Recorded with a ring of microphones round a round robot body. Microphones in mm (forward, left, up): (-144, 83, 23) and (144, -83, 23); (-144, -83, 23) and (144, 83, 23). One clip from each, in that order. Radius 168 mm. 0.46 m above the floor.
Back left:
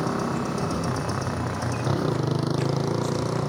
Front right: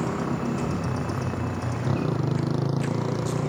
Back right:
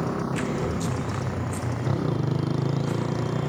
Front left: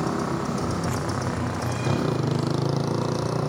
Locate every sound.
0.0 s a motorcycle: 90° left